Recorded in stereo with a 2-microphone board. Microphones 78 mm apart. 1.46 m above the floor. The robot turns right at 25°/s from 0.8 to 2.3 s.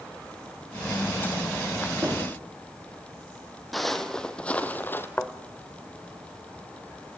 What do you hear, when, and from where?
2.0 s knocking: 35° right (ahead or behind), 3 m; by 2.4 s 40° right (ahead or behind), 3 m
3.7 s footsteps: centre (ahead or behind), 2 m; by 5.1 s 30° left (ahead or behind), 1.9 m
5.2 s a thud: 20° left (ahead or behind), 1.2 m